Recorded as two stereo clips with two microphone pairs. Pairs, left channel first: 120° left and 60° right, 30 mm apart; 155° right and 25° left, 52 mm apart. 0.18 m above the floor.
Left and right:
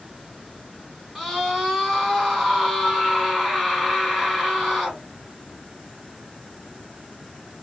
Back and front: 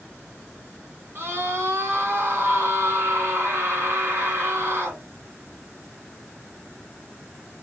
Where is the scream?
25° left, 2.5 m.